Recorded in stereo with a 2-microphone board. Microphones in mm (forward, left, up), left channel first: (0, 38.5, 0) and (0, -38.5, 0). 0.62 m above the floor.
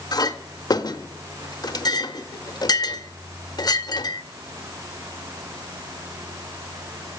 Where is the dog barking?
I don't hear a dog barking.